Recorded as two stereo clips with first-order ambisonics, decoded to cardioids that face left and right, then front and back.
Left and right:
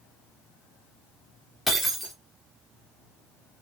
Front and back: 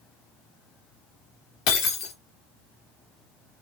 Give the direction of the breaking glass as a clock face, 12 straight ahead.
12 o'clock.